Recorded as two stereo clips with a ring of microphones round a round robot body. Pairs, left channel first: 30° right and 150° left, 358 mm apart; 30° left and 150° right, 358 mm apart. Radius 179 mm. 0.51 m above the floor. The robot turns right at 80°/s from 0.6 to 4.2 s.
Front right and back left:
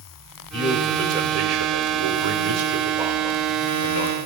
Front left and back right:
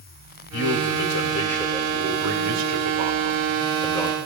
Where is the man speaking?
30° left, 1.9 m; by 4.2 s 45° right, 1.9 m.